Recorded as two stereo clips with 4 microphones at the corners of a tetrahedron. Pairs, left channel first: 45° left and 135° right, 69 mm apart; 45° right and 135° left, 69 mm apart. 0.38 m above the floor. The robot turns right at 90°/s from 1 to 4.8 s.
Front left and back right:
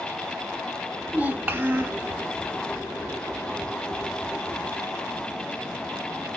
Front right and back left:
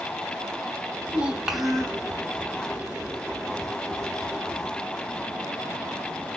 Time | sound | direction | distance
1.1 | a child speaking | 170° left | 1.0 m